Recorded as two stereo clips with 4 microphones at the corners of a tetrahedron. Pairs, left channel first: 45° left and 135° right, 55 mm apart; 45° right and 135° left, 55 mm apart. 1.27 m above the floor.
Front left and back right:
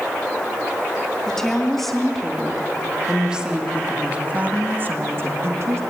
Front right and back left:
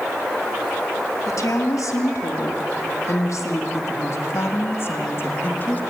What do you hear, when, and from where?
1.3 s a woman speaking: 35° right, 3.5 m; by 5.8 s 100° right, 2.5 m